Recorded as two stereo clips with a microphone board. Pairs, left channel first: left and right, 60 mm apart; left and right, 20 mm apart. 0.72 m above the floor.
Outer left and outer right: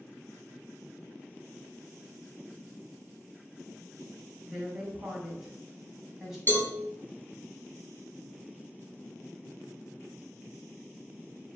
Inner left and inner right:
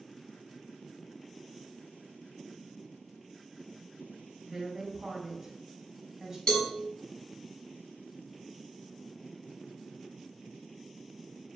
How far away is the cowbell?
About 1.4 m.